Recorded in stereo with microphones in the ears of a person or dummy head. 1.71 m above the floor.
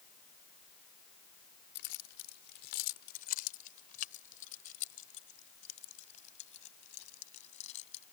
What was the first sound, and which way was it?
Keys jangling, 65° left (ahead or behind).